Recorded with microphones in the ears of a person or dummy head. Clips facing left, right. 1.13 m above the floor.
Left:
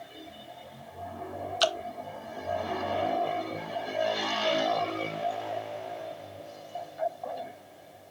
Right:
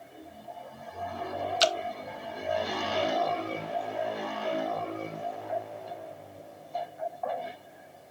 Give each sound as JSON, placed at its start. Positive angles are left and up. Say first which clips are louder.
{"t": 1.6, "sound": "dripping", "louder": "right 1 dB", "side_deg": -25}